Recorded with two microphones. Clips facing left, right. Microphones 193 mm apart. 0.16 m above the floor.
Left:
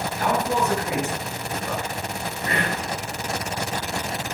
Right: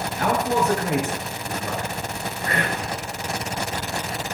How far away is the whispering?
About 2 m.